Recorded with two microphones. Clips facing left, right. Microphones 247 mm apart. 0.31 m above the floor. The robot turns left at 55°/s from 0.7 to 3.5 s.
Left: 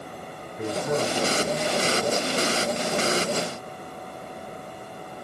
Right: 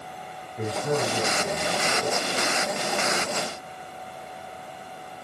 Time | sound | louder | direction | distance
0.6 | a man speaking | even | 125° right | 4.5 m